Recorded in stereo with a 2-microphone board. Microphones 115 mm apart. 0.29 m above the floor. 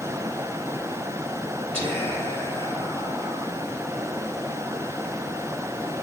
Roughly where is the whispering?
Left.